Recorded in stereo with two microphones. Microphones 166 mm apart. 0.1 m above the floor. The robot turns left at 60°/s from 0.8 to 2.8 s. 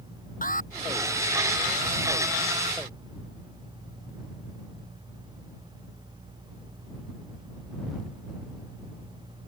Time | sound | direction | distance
0.4 | an alarm | 55° left (ahead or behind) | ?